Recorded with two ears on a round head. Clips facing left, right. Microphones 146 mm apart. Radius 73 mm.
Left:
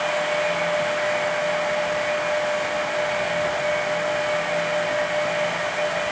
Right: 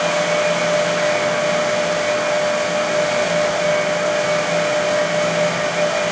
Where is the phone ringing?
I don't hear a phone ringing.